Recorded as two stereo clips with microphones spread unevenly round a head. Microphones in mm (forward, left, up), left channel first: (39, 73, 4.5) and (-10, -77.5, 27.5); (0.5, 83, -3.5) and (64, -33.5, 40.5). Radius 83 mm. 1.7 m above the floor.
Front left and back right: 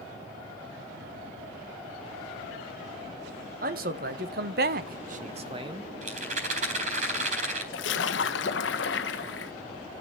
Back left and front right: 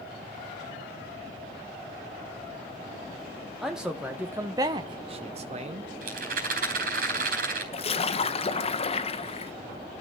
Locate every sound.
3.6 s a man speaking: 145° right, 1.5 m; by 5.9 s 45° right, 0.9 m
6.0 s a rattle: 70° right, 4.5 m
7.7 s a splash: 65° left, 1.2 m